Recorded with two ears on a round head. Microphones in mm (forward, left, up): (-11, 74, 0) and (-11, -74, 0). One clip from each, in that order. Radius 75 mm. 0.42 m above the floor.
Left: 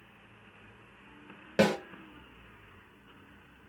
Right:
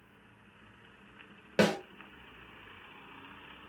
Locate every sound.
1.6 s a snare drum: 10° right (ahead or behind), 0.8 m